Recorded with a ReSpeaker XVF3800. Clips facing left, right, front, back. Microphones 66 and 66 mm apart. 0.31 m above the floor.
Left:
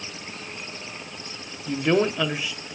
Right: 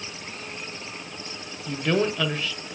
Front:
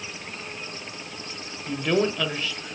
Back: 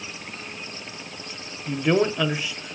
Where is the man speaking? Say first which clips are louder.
Left 2 dB, back 2 dB; 135° left, 0.9 m.